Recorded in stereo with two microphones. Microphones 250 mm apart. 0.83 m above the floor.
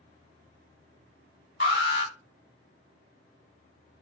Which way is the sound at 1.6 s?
40° left (ahead or behind).